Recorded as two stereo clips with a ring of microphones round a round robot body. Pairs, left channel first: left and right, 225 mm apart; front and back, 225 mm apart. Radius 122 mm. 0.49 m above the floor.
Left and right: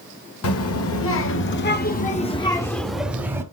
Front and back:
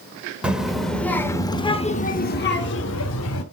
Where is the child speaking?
95° left, 1.3 m; by 3.4 s 15° right, 1.1 m.